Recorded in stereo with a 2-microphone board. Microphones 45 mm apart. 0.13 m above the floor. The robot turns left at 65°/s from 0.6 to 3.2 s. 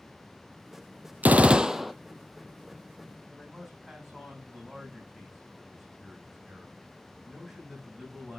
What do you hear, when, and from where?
1.2 s a gunshot: 135° right, 0.8 m; by 1.9 s straight behind, 0.8 m
3.3 s a man speaking: 5° right (ahead or behind), 8 m